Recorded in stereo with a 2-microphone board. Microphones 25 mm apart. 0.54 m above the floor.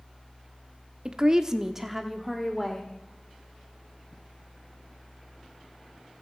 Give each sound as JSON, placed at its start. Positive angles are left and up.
{"t": 1.1, "sound": "a woman speaking", "side_deg": -30, "distance_m": 1.0}